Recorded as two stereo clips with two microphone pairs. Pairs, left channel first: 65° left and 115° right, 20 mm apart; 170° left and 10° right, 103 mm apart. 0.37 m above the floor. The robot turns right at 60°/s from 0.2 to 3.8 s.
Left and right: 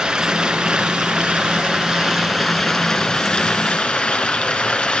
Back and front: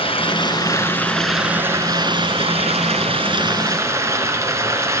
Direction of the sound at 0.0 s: 165° right.